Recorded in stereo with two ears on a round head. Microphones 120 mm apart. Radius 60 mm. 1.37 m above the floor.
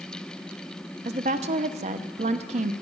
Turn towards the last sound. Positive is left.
turn(degrees=-50)  # may be behind; listen again after turning